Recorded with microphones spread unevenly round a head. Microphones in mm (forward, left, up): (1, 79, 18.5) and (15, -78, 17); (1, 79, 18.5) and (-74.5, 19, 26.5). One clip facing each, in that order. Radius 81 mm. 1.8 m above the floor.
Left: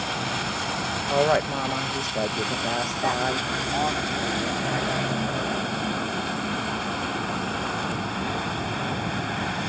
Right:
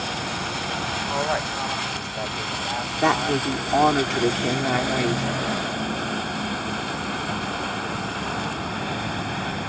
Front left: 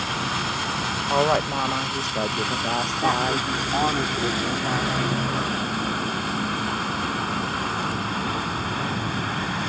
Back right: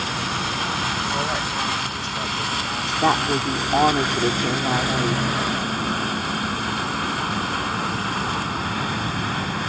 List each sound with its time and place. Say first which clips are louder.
1.1 s a woman speaking: left 6 dB, front left 4 dB; 60° left
3.0 s a woman speaking: right 7 dB, back right 4 dB; 75° right